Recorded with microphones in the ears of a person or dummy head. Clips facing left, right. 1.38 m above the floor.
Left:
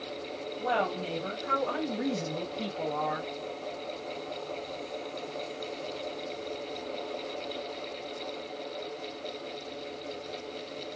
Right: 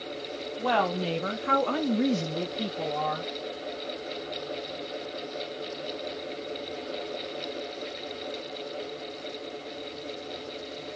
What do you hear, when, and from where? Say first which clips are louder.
0.6 s a woman speaking: right 4 dB; 85° right, 0.9 m; by 3.3 s 5° left (ahead or behind), 0.9 m